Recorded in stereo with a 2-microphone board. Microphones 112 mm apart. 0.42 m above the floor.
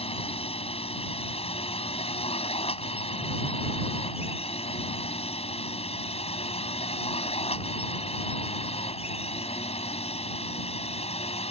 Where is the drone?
60° left (ahead or behind); by 11.5 s 65° left (ahead or behind).